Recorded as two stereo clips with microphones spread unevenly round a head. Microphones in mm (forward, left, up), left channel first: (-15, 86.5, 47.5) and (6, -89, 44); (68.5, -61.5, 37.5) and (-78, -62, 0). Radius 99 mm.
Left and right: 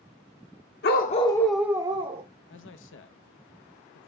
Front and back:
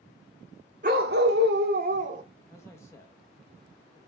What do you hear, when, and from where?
0.8 s a dog barking: 125° left, 1.0 m; by 2.2 s 140° right, 1.4 m
2.5 s a man speaking: 80° left, 0.8 m